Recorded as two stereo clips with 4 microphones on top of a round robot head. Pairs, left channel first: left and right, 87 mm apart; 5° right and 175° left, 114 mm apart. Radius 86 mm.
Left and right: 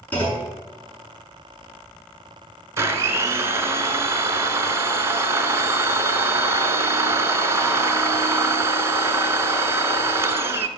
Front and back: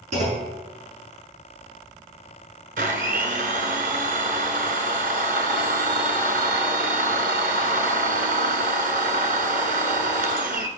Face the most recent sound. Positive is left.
turn(degrees=-150)